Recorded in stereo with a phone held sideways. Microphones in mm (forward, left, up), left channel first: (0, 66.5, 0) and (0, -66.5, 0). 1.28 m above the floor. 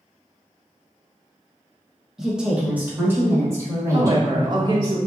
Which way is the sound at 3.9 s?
35° right (ahead or behind).